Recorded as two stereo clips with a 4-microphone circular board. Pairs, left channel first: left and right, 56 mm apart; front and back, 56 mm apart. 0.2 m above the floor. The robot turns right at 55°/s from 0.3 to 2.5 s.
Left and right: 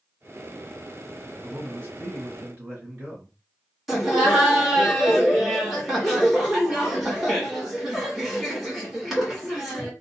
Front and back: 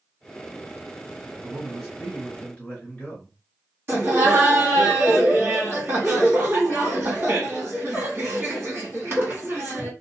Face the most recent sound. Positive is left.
turn(degrees=-170)